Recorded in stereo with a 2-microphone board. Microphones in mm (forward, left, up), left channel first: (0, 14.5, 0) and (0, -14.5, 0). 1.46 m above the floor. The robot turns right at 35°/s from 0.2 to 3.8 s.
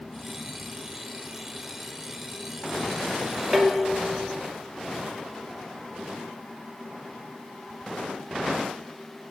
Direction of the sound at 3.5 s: 20° right (ahead or behind).